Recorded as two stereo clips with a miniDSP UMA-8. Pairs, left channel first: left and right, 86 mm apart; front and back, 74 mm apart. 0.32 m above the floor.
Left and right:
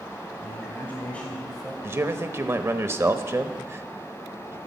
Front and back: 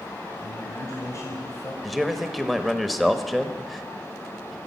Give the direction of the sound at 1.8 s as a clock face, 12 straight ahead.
3 o'clock.